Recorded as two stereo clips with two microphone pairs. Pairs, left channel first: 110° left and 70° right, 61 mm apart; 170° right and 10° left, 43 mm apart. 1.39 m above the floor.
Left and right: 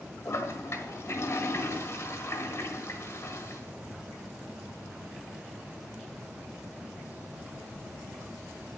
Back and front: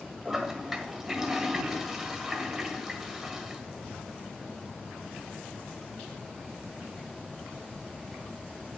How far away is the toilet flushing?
About 1.7 m.